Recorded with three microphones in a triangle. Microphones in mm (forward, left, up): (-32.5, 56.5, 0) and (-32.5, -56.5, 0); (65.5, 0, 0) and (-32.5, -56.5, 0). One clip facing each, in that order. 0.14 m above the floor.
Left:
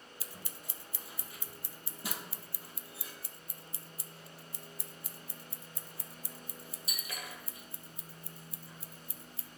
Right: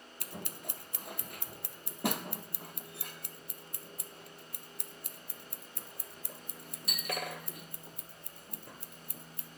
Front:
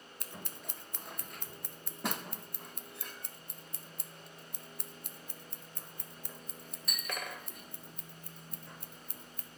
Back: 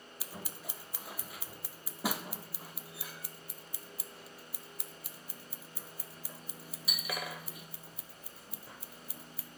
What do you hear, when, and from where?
0.2 s scissors: 65° right, 1.0 m